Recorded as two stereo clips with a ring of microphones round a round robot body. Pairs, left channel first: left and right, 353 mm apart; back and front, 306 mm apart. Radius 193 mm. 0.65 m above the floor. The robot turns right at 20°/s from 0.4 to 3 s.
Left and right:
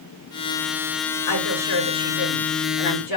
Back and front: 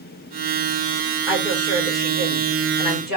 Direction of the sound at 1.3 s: 85° left.